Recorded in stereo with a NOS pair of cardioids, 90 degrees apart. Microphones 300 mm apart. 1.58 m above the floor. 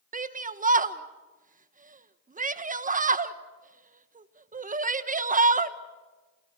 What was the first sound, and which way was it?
A shout, 25° right.